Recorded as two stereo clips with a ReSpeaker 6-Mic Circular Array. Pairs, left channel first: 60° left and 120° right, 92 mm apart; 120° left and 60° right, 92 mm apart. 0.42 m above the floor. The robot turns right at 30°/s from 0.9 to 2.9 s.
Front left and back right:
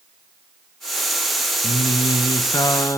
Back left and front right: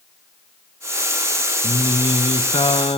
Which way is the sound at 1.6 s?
80° left.